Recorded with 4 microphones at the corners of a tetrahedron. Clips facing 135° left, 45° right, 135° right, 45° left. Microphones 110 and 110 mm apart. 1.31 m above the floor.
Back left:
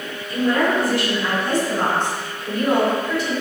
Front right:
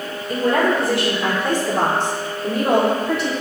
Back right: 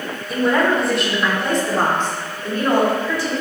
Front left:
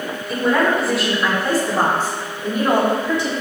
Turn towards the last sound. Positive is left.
turn(degrees=-20)